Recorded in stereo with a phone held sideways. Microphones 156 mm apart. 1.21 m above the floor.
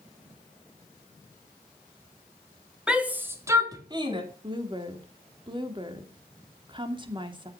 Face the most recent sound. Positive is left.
turn(degrees=-30)  # may be behind; listen again after turning